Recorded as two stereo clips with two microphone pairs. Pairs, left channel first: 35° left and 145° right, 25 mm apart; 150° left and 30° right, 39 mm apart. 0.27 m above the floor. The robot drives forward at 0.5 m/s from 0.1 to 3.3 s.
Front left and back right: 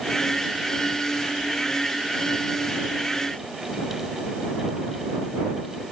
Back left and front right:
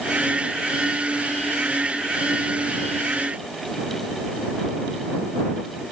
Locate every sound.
Only background noise.